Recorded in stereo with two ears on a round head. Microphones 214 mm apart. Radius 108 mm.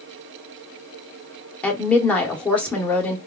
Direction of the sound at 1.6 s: 5° left (ahead or behind).